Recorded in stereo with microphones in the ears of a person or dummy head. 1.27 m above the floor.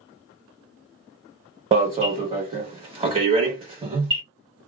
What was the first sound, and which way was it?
An alarm, 25° right (ahead or behind).